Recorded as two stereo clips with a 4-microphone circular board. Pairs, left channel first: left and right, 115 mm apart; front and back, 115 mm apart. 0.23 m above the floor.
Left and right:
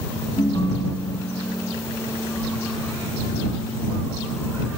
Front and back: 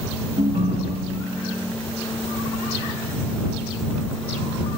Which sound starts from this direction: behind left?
A ringtone, at 0.4 s.